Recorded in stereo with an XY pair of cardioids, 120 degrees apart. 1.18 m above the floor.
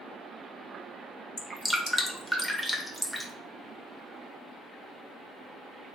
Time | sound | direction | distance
1.4 | dripping | straight ahead | 0.7 m